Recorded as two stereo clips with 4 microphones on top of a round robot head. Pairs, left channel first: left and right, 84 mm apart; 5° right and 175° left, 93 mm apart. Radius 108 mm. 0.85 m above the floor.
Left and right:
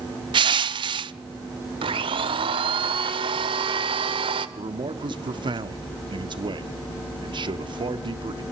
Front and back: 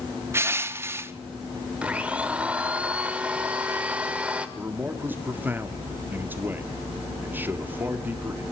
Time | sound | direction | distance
0.3 | crushing | 115° right | 0.6 m
1.8 | a blender | 105° right | 1.0 m
4.6 | a man speaking | 115° right | 1.7 m